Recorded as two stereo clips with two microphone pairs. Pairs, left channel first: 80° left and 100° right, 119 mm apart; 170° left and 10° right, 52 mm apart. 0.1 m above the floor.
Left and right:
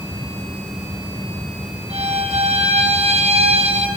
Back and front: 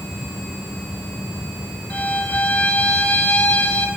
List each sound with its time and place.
1.9 s a violin: 130° right, 4 m